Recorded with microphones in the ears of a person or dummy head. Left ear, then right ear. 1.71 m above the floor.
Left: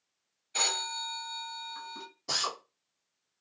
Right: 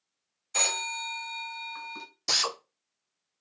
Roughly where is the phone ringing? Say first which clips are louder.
Right 1 dB; right.